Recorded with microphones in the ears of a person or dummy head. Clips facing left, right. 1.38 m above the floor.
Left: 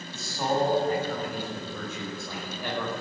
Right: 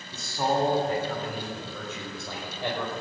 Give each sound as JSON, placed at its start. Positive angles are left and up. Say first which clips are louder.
{"t": 0.1, "sound": "a man speaking", "louder": "right 1 dB", "side_deg": -50, "distance_m": 3.5}